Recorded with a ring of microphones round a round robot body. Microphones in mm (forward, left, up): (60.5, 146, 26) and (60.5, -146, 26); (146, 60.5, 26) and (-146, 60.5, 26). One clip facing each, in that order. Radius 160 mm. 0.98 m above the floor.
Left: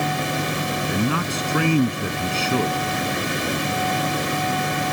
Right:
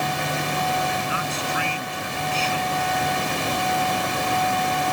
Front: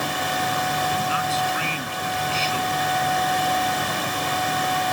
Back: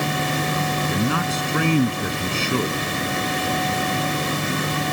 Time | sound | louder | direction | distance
0.9 | a man speaking | left 6 dB, back 5 dB | 140° left | ?